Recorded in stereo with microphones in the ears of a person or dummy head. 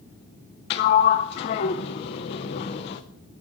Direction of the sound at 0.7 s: 30° left (ahead or behind).